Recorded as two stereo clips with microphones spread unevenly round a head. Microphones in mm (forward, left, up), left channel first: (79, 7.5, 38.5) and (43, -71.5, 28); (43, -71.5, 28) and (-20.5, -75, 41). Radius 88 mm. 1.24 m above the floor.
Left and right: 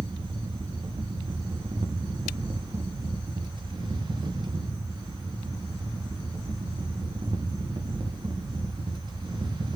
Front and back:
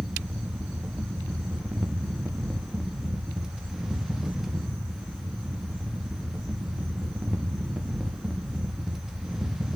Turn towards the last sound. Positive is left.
turn(degrees=-90)